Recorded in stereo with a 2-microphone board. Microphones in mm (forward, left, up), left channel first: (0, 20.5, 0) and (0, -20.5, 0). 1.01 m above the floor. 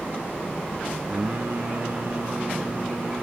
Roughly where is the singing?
Right.